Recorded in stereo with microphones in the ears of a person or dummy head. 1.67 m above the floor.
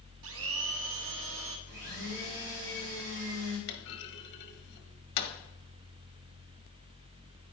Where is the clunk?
55° left (ahead or behind), 1.4 m.